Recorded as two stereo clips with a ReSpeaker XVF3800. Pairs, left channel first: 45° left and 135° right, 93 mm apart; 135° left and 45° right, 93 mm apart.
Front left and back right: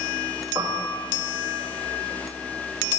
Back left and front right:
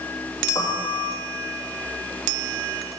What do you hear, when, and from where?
0.6 s a piano: 175° left, 2.5 m